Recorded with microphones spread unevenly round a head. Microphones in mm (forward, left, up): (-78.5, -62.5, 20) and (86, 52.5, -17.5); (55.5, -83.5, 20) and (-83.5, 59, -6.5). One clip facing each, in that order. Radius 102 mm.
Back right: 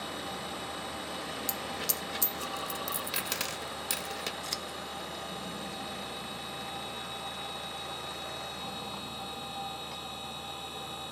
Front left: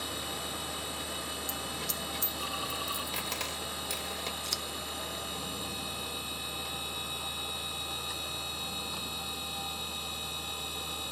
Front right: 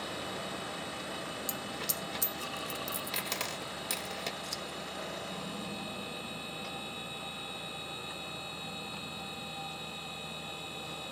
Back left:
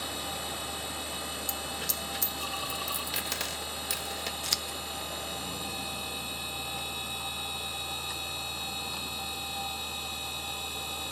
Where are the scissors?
120° left.